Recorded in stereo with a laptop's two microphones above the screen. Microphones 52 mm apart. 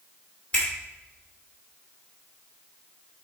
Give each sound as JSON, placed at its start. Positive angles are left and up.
{"t": 0.5, "sound": "a finger snap", "side_deg": 20, "distance_m": 2.5}